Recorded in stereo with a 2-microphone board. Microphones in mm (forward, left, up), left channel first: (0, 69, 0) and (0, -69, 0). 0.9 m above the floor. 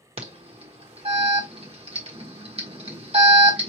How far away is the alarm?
About 1.4 m.